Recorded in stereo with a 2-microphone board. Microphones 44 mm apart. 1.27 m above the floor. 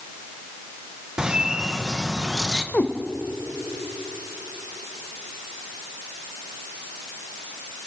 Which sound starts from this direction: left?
A cat meowing, at 2.7 s.